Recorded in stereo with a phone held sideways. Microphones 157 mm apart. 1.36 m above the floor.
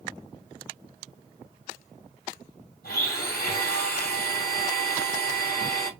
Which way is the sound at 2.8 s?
75° left (ahead or behind).